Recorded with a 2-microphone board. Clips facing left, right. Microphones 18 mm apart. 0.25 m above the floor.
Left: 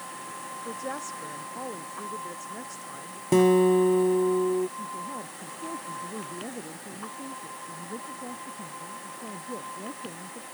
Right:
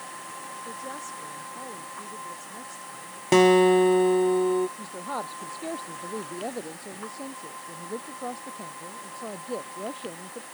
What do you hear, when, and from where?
0.7 s a woman speaking: 15° left (ahead or behind)
3.3 s a guitar: 35° right (ahead or behind)
4.8 s a woman speaking: 65° right (ahead or behind)